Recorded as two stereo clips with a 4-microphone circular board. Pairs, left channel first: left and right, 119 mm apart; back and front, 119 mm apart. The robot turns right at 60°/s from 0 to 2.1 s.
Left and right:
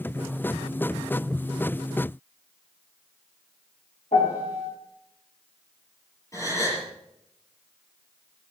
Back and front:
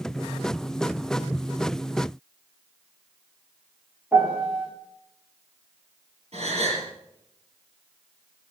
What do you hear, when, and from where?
4.1 s a piano: 75° left, 6.5 m
6.3 s a gasp: 30° left, 6 m